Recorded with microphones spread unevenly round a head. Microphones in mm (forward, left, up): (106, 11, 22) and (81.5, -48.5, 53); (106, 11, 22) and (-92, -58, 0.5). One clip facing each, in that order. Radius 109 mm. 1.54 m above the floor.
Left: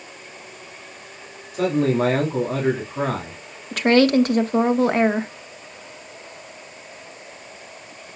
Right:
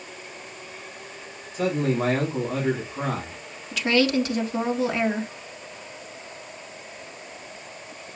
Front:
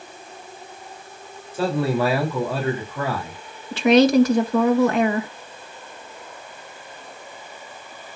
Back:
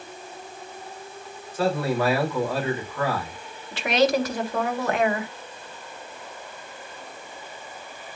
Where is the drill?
No drill in this recording.